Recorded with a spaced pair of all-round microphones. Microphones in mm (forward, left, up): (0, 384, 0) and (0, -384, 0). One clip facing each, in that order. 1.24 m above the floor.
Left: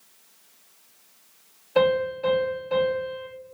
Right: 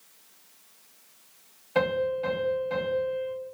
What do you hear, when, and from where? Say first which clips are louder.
1.8 s a piano: left 4 dB; 25° right (ahead or behind), 1.1 m